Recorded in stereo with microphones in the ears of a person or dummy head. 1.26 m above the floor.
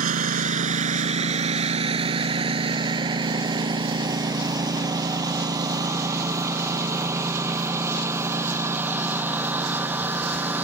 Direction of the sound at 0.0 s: 45° right (ahead or behind).